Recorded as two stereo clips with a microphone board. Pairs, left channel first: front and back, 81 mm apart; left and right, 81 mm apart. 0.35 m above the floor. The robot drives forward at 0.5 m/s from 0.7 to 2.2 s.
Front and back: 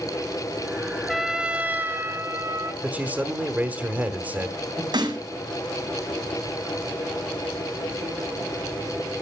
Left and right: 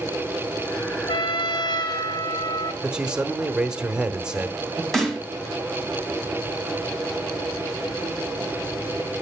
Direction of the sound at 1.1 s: 90° left.